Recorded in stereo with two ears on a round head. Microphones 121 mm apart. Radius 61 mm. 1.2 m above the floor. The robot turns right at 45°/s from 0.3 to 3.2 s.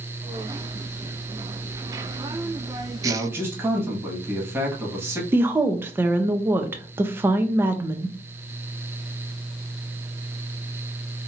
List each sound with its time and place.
3.0 s a man speaking: 25° right (ahead or behind), 1.3 m; by 5.2 s 20° right (ahead or behind), 1.3 m
5.3 s a woman speaking: 15° right (ahead or behind), 0.5 m